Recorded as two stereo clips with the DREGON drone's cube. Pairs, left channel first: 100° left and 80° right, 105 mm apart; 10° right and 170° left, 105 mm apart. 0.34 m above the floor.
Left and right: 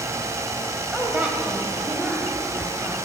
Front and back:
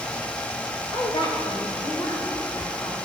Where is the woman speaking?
10° right, 1.4 m.